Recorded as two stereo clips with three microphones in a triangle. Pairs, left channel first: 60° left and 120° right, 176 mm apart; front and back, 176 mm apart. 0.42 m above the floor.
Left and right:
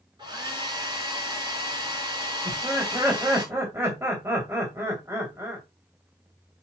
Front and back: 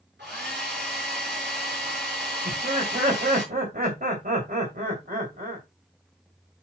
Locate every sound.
0.2 s a hair dryer: 175° left, 6 m
2.5 s laughter: 170° left, 2.5 m